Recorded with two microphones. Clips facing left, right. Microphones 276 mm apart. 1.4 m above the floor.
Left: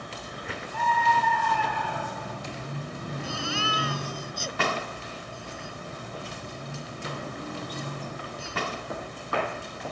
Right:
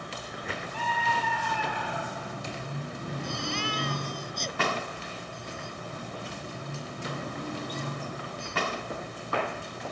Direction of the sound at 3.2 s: 5° left (ahead or behind).